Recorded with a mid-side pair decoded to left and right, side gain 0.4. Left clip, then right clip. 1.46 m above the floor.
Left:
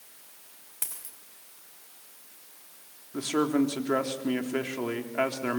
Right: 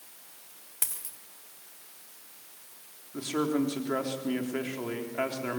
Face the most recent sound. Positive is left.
turn(degrees=40)